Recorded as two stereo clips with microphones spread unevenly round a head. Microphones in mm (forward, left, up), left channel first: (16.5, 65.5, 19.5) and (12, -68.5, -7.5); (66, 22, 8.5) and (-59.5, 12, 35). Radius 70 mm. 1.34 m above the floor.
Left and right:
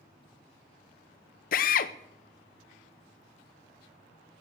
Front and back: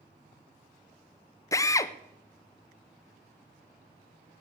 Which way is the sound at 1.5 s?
65° left.